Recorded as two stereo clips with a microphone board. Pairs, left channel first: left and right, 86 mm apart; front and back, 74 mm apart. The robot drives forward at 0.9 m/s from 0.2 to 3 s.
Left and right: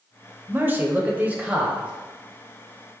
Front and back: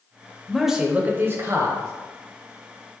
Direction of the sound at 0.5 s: 75° right.